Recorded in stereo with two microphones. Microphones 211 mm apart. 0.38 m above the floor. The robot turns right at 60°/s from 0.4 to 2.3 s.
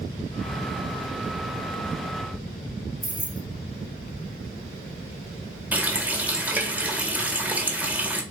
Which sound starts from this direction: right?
Keys jangling, at 3.0 s.